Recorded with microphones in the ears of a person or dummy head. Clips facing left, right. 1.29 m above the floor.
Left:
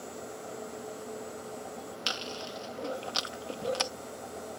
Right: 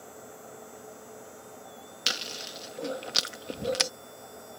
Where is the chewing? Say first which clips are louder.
Right 1 dB; 20° right (ahead or behind).